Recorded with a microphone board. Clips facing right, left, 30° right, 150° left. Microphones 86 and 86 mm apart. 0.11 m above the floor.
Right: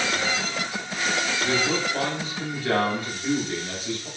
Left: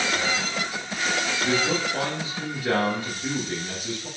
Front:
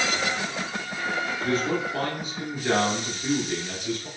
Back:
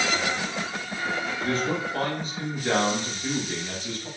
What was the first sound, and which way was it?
A man speaking, 35° left.